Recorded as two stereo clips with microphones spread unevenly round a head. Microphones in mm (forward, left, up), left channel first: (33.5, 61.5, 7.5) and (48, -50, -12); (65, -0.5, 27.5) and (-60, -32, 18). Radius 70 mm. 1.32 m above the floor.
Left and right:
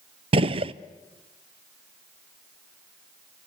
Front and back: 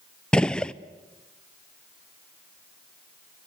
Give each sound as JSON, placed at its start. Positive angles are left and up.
{"t": 0.3, "sound": "a gunshot", "azimuth_deg": -70, "distance_m": 0.6}